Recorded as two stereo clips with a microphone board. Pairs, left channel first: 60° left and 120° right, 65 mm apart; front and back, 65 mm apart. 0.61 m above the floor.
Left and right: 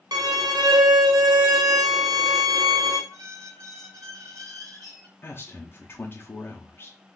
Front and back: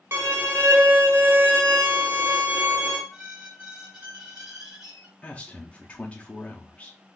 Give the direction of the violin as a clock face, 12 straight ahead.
4 o'clock.